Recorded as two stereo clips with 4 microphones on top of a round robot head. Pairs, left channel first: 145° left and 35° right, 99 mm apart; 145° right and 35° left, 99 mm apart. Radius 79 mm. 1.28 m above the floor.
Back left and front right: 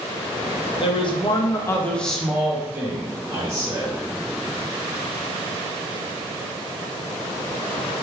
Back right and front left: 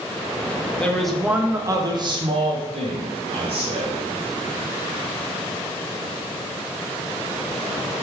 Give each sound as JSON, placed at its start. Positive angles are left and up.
{"t": 0.8, "sound": "a man speaking", "azimuth_deg": 140, "distance_m": 0.7}